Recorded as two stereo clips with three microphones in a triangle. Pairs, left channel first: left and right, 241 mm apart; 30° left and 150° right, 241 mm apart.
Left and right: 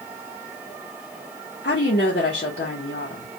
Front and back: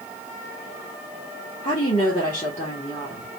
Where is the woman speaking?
75° left, 1.3 m.